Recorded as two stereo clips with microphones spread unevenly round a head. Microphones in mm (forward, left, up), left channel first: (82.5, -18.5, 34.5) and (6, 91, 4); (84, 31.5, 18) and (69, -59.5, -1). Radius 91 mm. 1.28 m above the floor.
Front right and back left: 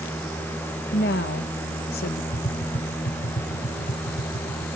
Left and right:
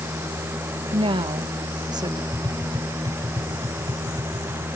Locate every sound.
0.9 s a woman speaking: 85° right; by 2.2 s 55° right
2.3 s tapping: 55° right